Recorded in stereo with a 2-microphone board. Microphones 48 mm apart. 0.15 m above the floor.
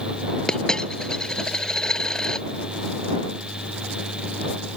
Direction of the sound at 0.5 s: 15° left (ahead or behind).